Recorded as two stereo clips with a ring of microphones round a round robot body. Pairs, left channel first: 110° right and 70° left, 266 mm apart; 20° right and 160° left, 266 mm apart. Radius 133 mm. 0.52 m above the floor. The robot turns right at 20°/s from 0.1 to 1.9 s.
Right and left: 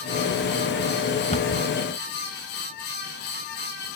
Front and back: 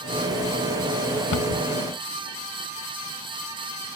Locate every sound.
1.3 s a cupboard door: 50° right, 1.1 m; by 1.6 s 40° right, 1.1 m